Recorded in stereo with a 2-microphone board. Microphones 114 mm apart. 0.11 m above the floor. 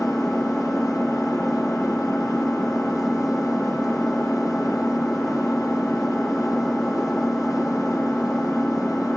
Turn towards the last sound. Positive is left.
turn(degrees=5)  # may be behind; listen again after turning